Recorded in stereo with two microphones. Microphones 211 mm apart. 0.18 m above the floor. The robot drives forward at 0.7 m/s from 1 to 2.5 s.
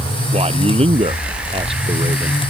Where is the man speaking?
30° right (ahead or behind); by 2.4 s 25° right (ahead or behind).